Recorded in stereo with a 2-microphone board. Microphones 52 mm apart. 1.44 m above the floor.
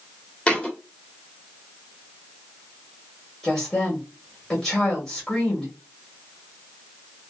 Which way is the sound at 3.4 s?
25° left (ahead or behind).